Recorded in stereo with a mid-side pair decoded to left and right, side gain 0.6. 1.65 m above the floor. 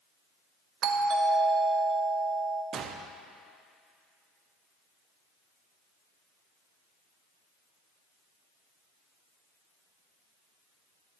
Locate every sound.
0.8 s a doorbell: 60° right, 1.0 m
2.7 s a gunshot: 50° right, 0.7 m